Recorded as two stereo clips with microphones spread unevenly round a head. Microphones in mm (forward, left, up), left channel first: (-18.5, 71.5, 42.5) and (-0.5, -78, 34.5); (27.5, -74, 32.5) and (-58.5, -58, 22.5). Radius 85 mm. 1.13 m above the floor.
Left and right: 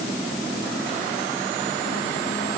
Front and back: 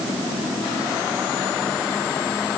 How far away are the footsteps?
I don't hear footsteps.